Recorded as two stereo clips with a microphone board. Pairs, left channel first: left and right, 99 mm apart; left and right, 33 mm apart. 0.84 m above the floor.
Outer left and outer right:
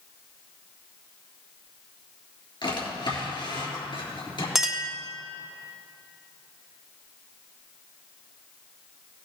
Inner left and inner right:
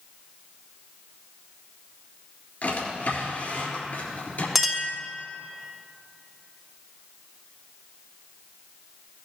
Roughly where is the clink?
Centre.